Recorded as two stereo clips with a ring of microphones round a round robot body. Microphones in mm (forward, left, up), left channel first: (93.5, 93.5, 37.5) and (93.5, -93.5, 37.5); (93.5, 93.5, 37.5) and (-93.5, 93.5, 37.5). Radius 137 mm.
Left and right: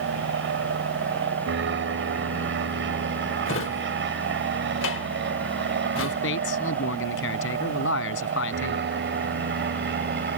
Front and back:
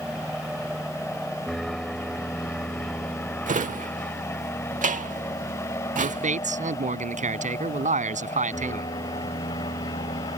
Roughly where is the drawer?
Behind left.